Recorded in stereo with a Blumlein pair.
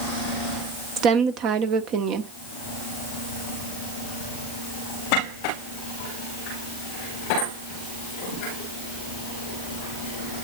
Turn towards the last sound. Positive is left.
turn(degrees=-35)